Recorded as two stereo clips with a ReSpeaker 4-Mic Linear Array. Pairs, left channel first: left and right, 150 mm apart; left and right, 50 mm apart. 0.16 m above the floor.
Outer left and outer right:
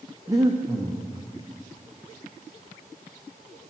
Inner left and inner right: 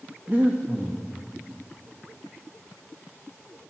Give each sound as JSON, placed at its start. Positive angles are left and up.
{"t": 0.3, "sound": "breathing", "side_deg": -25, "distance_m": 1.5}